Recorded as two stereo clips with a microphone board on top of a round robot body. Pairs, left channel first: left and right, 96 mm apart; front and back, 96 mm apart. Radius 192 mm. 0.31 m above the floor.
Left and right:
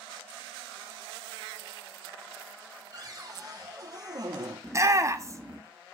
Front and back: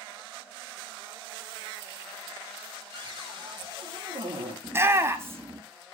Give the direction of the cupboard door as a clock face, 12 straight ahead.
5 o'clock.